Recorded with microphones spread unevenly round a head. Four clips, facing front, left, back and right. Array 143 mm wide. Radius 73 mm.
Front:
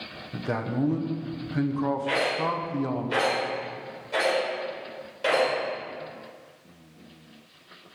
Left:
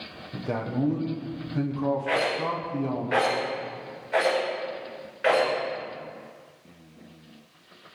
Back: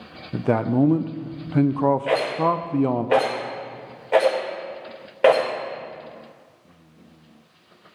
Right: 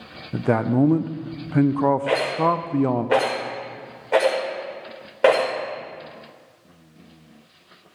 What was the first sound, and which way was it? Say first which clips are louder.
A man speaking: right 9 dB, back 9 dB; 125° right.